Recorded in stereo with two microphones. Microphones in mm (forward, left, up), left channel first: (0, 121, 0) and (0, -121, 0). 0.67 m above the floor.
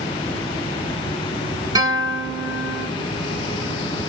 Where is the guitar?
15° right (ahead or behind), 1.3 m.